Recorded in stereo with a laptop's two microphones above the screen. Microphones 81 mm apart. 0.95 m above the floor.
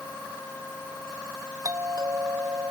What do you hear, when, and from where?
1.6 s a doorbell: 50° right (ahead or behind)